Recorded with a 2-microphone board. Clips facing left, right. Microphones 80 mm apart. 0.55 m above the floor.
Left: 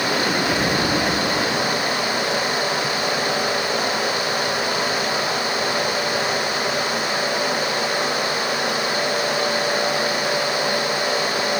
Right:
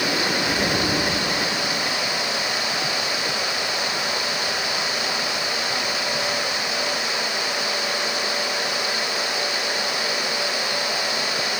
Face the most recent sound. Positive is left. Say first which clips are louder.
# left 2 dB
turn(degrees=-45)  # may be behind; listen again after turning